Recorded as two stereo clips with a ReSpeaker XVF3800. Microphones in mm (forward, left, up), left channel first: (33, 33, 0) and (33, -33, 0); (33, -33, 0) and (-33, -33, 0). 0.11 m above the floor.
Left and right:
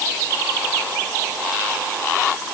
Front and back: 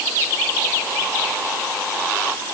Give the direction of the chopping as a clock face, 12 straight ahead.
I don't hear chopping.